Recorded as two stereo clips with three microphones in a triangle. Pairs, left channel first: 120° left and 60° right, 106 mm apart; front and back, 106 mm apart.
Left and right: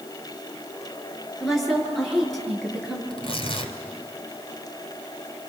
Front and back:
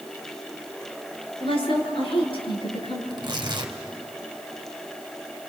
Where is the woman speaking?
30° left, 7 m.